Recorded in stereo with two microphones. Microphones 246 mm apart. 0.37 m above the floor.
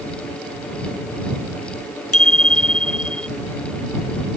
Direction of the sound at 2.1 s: 60° left (ahead or behind).